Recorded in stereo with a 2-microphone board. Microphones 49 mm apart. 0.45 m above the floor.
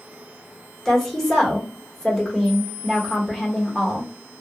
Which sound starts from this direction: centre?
A woman speaking, at 0.8 s.